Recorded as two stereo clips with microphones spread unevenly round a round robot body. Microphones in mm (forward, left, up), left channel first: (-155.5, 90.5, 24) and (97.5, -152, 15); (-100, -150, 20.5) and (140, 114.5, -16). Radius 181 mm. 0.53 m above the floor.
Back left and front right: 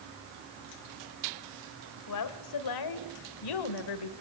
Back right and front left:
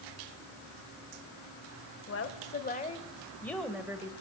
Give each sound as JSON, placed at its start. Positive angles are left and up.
{"t": 2.1, "sound": "a woman speaking", "azimuth_deg": 170, "distance_m": 3.0}